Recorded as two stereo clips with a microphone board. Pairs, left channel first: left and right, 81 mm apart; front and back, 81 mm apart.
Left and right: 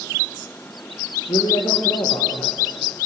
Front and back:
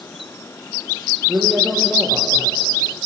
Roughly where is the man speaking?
Left.